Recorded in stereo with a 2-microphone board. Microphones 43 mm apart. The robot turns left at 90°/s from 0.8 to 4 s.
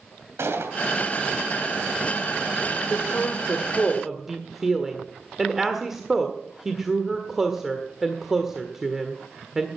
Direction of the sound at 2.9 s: 65° left (ahead or behind).